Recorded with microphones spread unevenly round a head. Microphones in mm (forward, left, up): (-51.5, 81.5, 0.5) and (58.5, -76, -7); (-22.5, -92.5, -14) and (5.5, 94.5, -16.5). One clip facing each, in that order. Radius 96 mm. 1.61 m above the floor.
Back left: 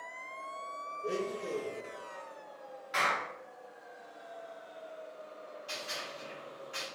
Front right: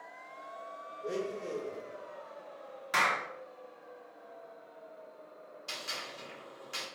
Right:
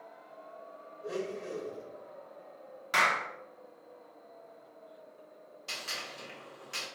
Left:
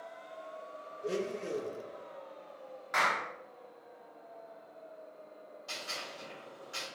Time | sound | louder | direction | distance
1.0 | a blender | back left 1 dB, left 2 dB | 45° left | 0.6 m
2.9 | a clap | front right 1 dB, right 2 dB | 55° right | 0.8 m
5.7 | a gunshot | back left 1 dB, even | 50° right | 1.8 m